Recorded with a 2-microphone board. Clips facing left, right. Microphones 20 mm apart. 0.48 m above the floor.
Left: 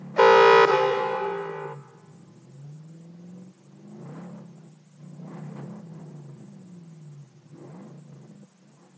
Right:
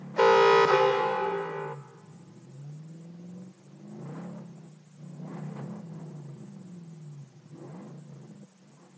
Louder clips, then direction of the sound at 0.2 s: Left 5 dB; 25° left (ahead or behind).